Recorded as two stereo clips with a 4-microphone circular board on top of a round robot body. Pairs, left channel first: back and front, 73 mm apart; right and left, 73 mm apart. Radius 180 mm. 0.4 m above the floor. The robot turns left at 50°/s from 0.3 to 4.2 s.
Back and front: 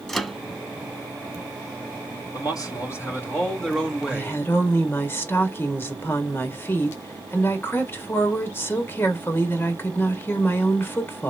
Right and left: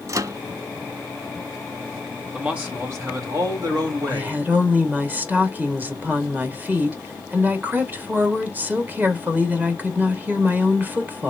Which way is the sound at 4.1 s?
145° left.